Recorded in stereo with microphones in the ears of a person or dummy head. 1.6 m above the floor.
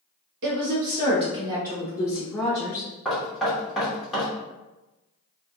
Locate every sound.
0.4 s a woman speaking: 60° right (ahead or behind), 0.9 m; by 2.9 s 10° left (ahead or behind), 1.4 m
3.0 s knocking: 5° left (ahead or behind), 1.2 m